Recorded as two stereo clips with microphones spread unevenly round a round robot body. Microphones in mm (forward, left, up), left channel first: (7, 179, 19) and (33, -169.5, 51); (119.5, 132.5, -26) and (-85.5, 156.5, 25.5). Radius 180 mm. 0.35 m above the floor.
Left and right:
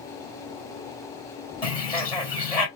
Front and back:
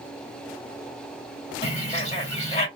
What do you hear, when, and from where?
1.6 s a bird: 25° left, 2.0 m